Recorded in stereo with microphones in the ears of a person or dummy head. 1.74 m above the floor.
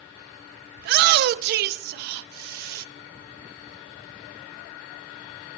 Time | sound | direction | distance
0.8 | a shout | 60° right (ahead or behind) | 0.5 m